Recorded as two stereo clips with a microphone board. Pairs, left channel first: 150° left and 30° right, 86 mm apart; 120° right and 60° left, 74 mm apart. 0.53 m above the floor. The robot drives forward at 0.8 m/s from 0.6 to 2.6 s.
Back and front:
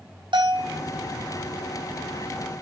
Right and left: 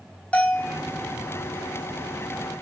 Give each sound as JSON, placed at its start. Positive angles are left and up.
{"t": 0.3, "sound": "a bell", "azimuth_deg": -50, "distance_m": 3.0}